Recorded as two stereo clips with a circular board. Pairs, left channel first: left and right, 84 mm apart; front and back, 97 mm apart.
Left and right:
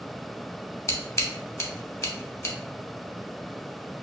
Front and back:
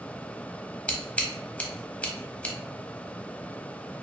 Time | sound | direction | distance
0.9 | scissors | 70° left | 0.5 m